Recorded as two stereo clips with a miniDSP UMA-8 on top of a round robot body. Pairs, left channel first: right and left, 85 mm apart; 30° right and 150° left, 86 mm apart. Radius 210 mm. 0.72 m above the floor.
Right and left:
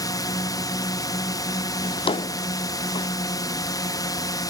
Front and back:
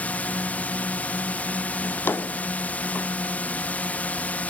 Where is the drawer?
95° right.